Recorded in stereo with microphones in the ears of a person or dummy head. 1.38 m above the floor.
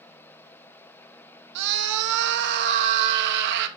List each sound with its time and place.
1.6 s a scream: 65° right (ahead or behind), 2 m